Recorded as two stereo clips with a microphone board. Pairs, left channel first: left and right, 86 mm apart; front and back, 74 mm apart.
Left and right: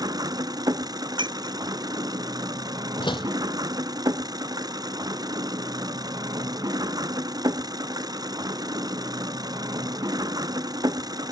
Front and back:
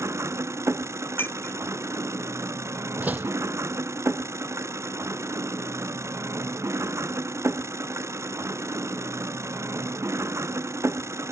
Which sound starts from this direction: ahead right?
Breaking glass, at 1.2 s.